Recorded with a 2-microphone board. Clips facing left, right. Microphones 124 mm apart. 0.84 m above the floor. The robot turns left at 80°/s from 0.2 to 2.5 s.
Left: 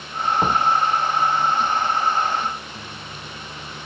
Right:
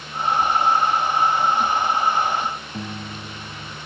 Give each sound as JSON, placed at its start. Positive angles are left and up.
{"t": 0.4, "sound": "a door slam", "side_deg": 80}
{"t": 2.7, "sound": "a piano", "side_deg": -60}